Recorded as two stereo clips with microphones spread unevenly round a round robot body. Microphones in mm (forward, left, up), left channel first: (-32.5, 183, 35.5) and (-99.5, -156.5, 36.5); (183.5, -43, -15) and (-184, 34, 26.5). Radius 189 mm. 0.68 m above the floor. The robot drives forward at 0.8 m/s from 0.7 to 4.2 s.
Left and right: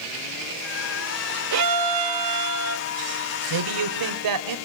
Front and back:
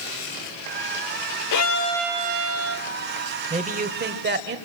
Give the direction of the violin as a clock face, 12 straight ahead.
2 o'clock.